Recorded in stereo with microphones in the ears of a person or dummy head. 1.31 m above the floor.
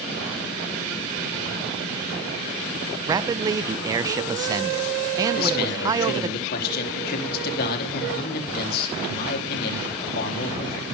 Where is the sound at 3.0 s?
20° right (ahead or behind), 0.7 m.